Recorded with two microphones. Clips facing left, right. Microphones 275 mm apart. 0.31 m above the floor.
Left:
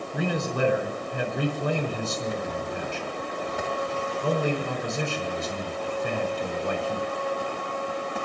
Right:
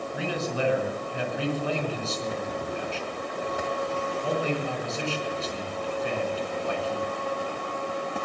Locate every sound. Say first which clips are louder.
0.1 s a man speaking: left 3 dB; 55° left (ahead or behind), 4.5 m